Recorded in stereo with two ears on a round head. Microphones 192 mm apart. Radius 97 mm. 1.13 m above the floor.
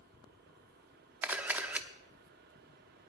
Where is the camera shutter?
5° right (ahead or behind), 0.7 m.